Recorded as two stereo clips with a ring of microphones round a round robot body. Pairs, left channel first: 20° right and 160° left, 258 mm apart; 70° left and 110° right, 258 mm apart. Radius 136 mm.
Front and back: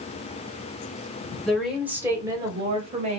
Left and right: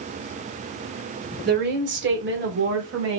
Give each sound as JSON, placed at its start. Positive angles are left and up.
{"t": 1.4, "sound": "a woman speaking", "azimuth_deg": -110, "distance_m": 1.3}